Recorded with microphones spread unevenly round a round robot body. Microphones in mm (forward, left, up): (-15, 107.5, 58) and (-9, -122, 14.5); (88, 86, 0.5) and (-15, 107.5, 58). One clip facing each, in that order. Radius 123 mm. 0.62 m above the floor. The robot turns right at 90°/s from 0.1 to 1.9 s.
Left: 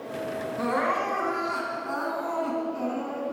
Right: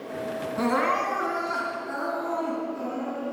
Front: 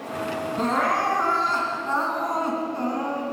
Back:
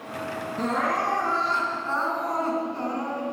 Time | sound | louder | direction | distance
0.6 | crying | right 3 dB, front 2 dB | 60° right | 3 m